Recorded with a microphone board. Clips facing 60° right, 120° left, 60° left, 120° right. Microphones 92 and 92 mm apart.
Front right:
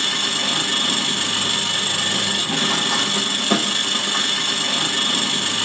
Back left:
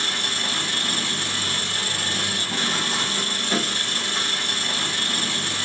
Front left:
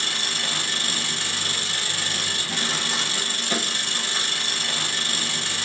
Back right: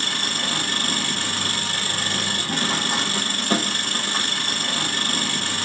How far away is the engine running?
About 1.0 m.